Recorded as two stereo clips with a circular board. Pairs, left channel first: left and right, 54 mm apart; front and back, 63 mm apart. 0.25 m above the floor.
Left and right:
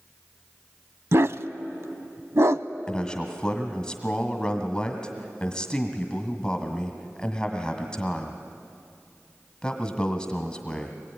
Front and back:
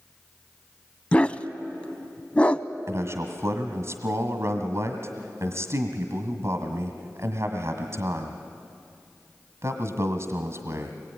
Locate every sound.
1.1 s a dog barking: 70° right, 0.5 m
2.9 s a man speaking: 160° left, 1.5 m